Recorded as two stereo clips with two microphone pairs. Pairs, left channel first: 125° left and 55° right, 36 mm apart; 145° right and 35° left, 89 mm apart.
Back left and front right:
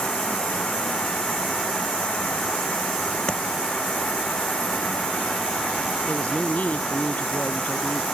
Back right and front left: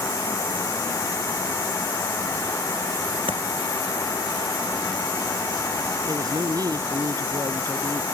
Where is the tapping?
60° left.